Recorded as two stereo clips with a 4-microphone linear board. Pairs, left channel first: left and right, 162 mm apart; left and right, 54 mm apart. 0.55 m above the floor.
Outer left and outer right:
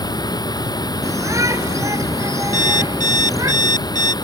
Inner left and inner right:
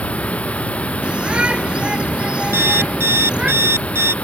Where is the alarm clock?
55° right (ahead or behind).